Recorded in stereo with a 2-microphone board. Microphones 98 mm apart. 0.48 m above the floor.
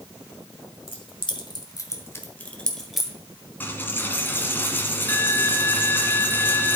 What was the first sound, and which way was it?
Keys jangling, 65° left (ahead or behind).